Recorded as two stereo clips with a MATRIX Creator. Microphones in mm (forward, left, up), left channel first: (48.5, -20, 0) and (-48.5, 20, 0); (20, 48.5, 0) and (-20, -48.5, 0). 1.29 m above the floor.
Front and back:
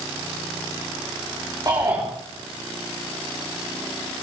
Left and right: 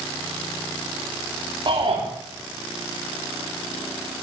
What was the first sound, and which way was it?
A shout, 150° right.